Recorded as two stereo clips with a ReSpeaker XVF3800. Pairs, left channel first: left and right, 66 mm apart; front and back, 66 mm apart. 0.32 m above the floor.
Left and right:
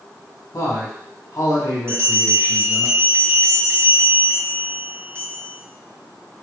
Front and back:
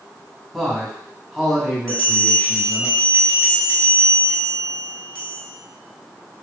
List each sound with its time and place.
0.5 s a man speaking: 90° left, 2 m
1.9 s a bell: 70° right, 1.8 m